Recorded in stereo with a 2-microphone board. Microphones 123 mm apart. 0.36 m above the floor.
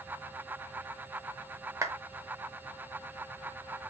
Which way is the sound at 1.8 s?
25° right (ahead or behind).